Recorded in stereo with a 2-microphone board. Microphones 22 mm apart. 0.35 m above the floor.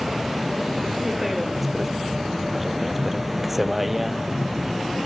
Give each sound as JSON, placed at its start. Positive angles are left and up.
{"t": 0.0, "sound": "a vehicle", "side_deg": -10}